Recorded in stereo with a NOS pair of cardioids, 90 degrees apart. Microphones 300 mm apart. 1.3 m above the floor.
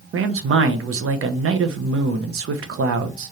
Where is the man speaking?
50° right, 1.2 m.